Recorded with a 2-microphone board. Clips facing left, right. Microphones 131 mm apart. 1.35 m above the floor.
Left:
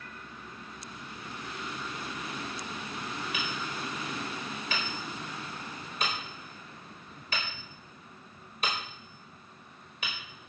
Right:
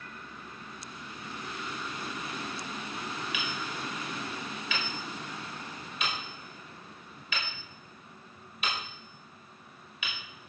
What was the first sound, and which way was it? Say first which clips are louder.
Hammering: even; 40° left (ahead or behind).